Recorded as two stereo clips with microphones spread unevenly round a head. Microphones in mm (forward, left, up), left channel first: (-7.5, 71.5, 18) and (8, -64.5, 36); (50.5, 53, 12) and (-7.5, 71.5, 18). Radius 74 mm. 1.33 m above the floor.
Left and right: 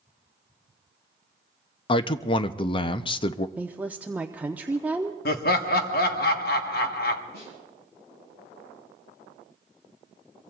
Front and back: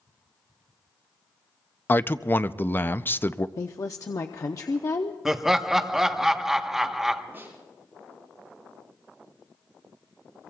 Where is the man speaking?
40° left, 0.5 m.